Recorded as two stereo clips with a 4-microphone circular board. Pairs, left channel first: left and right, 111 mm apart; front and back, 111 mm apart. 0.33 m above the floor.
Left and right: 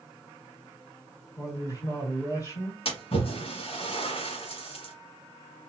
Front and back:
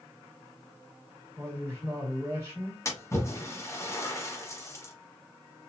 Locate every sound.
1.4 s a man speaking: 130° left, 1.8 m
2.9 s a splash: 65° left, 1.2 m